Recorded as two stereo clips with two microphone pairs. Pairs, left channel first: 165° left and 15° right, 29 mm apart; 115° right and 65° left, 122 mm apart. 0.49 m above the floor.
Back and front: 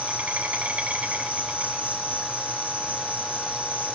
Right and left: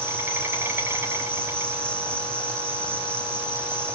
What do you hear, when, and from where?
0.0 s an insect: straight ahead, 4.5 m